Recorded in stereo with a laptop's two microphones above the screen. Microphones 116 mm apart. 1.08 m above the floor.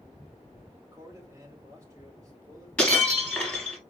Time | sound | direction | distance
0.8 | a man speaking | 25° right (ahead or behind) | 2 m
2.8 | breaking glass | 10° left (ahead or behind) | 1.2 m